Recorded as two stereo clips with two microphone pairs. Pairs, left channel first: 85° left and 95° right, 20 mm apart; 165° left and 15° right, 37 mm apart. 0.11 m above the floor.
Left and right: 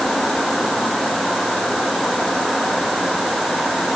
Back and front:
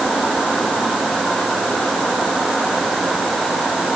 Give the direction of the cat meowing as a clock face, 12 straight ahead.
No cat meowing in this recording.